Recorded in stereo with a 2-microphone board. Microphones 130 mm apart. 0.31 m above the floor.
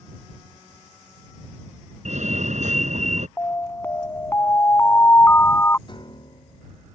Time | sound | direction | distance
2.0 | a fire alarm | 65° right (ahead or behind) | ?
3.4 | an alarm | 20° left (ahead or behind) | ?
5.9 | a piano | 35° left (ahead or behind) | ?